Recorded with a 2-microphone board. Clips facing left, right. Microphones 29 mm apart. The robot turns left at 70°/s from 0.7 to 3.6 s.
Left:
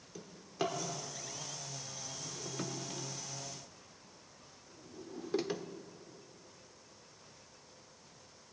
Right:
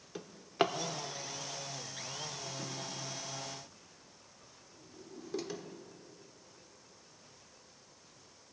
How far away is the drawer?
About 0.5 m.